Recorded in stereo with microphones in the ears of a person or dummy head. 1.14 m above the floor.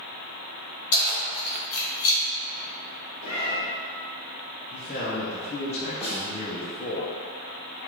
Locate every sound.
0.9 s keys jangling: 65° left (ahead or behind), 1.8 m; by 2.2 s 80° left, 1.4 m
3.2 s a cat meowing: 60° left (ahead or behind), 1.7 m
4.7 s a man speaking: 30° left (ahead or behind), 0.8 m
6.0 s a snare drum: centre (ahead or behind), 1.3 m